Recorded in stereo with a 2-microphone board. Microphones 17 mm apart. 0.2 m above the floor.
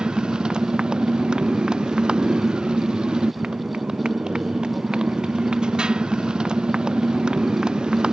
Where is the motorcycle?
60° right (ahead or behind).